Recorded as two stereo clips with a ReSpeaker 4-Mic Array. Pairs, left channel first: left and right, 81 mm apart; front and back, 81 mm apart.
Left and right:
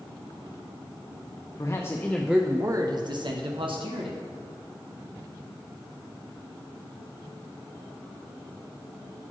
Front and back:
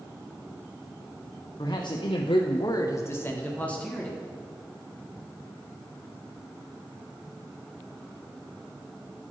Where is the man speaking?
40° left, 0.9 m; by 4.2 s 80° right, 2.0 m.